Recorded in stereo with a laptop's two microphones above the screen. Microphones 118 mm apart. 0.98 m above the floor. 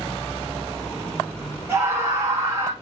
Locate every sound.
1.7 s a scream: 20° right (ahead or behind), 3 m; by 2.7 s 30° right (ahead or behind), 3.5 m